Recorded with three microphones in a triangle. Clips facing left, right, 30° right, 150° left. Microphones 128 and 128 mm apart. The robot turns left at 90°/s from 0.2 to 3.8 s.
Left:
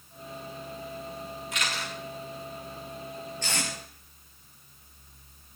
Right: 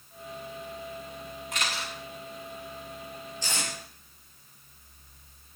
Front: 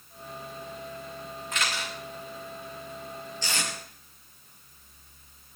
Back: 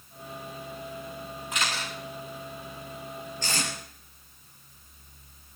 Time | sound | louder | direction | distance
1.5 | a camera shutter | right 1 dB, even | 130° right | 9 m
3.4 | tape being pulled | left 1 dB, back 1 dB | 115° left | 5 m